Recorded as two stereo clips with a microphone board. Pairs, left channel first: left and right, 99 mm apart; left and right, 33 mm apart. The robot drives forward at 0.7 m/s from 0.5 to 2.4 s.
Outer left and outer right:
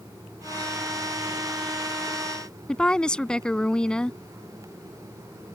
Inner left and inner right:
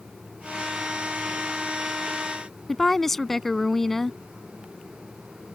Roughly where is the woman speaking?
Centre.